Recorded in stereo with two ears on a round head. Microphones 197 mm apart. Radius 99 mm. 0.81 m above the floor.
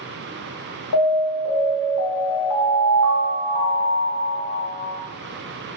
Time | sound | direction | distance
0.9 | an alarm | 85° left | 0.7 m